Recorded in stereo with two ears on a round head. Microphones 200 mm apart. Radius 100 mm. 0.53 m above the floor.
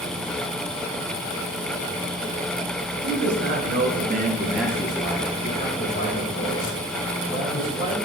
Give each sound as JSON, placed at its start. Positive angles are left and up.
{"t": 3.0, "sound": "a man speaking", "side_deg": -55, "distance_m": 2.0}